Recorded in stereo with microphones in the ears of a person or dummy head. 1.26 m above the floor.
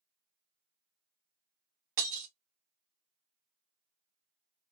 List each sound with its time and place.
2.0 s breaking glass: 40° right (ahead or behind), 1.0 m